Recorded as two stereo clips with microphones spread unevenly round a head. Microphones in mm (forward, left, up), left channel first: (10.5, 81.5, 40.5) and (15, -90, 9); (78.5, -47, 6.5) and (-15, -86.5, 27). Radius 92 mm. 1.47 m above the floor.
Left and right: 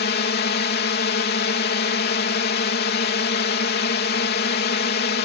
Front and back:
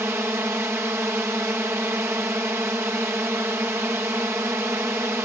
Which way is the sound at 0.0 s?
125° left.